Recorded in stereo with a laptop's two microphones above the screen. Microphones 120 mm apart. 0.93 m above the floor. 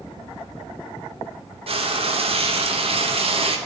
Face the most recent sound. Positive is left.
turn(degrees=-50)  # may be behind; listen again after turning